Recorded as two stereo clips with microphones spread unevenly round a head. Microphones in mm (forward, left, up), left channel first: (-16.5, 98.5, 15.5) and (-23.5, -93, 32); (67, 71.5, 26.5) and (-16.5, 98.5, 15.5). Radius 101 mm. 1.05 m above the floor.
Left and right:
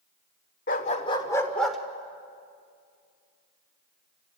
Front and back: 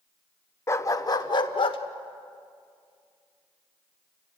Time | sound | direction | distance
0.7 | a dog barking | 40° left | 1.2 m